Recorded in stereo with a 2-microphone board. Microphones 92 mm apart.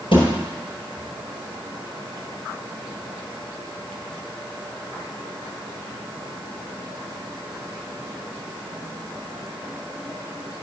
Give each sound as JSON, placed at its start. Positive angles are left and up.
{"t": 0.1, "sound": "a thud", "side_deg": 65, "distance_m": 4.5}